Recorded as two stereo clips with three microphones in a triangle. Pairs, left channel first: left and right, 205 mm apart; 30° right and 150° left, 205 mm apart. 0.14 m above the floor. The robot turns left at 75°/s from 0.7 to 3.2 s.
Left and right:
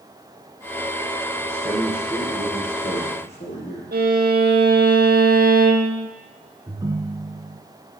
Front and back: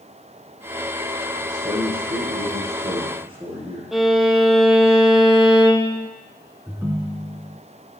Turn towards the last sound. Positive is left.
turn(degrees=-140)